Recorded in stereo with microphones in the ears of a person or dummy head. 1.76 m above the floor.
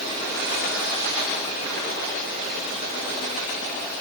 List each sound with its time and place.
Only background noise.